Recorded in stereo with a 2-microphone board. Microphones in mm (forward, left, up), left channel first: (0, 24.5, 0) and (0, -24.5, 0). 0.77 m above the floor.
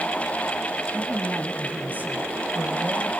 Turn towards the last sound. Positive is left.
turn(degrees=-30)  # may be behind; listen again after turning